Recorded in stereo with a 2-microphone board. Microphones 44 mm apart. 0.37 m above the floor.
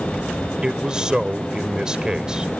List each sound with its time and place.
0.6 s a man speaking: 15° right (ahead or behind)